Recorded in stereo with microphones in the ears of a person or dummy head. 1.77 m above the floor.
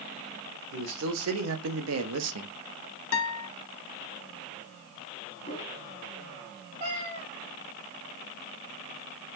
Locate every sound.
0.7 s a man speaking: 75° right (ahead or behind), 2 m; by 2.5 s 85° right, 1.0 m
3.1 s a guitar: 75° left (ahead or behind), 1.5 m
5.4 s a whoosh: 35° left (ahead or behind), 1.8 m
6.8 s a cat meowing: 35° right (ahead or behind), 2.5 m